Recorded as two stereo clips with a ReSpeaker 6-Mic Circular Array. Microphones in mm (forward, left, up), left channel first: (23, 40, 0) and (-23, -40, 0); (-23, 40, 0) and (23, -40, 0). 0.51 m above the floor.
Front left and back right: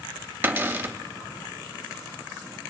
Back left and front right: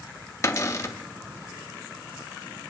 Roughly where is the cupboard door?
Behind.